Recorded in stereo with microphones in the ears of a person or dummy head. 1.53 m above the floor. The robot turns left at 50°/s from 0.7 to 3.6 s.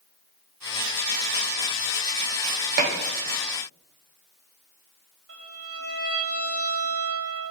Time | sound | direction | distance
2.8 | dishes clattering | 50° right (ahead or behind) | 1.5 m
5.3 | a violin | 75° right (ahead or behind) | 4.5 m